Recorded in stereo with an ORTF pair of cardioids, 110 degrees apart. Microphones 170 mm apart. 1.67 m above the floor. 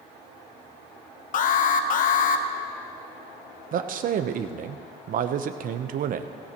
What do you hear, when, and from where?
1.3 s an alarm: 55° left, 1.0 m
3.7 s a man speaking: 55° right, 0.9 m